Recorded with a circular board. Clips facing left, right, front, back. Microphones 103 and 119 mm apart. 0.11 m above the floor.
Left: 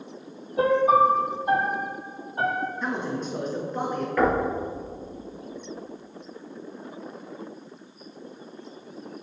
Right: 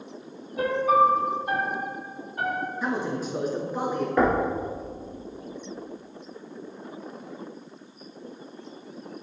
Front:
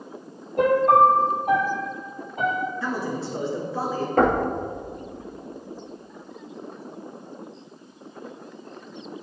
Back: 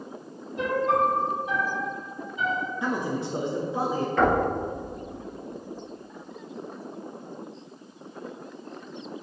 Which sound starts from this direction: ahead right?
Knocking, at 4.2 s.